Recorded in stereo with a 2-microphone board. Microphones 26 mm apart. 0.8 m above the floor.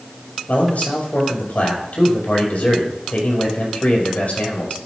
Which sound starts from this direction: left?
A man speaking, at 0.5 s.